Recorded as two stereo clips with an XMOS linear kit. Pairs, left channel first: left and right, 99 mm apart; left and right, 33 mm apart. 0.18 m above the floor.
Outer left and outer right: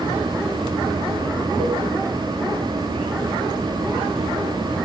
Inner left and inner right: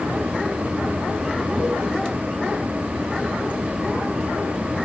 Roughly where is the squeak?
No squeak in this recording.